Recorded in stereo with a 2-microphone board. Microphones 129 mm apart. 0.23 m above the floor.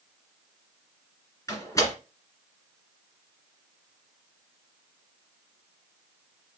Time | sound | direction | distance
1.5 | a door slam | 25° left (ahead or behind) | 2 m